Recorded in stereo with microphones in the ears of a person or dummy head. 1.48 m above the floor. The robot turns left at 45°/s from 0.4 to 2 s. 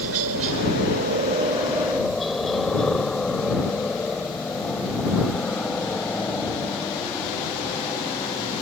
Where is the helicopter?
70° right (ahead or behind); by 8.6 s 15° left (ahead or behind).